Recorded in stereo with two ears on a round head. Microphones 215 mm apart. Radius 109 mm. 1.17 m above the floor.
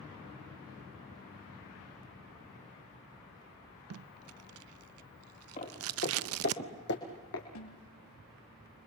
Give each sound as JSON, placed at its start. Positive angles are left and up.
{"t": 3.9, "sound": "tape being pulled", "side_deg": -65, "distance_m": 0.6}
{"t": 5.6, "sound": "footsteps", "side_deg": 30, "distance_m": 5.0}
{"t": 7.5, "sound": "a snare drum", "side_deg": 85, "distance_m": 7.5}